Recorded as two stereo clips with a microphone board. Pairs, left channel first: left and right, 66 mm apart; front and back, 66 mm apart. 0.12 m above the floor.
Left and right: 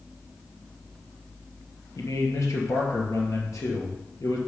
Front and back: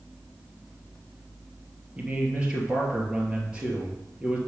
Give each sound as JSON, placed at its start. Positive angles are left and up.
{"t": 2.0, "sound": "a man speaking", "azimuth_deg": 110, "distance_m": 2.5}